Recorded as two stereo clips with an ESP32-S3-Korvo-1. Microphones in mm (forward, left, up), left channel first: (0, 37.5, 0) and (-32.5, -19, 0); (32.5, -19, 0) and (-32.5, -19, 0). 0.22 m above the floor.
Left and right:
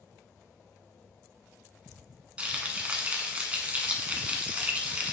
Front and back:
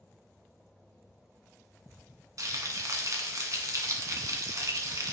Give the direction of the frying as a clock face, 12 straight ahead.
6 o'clock.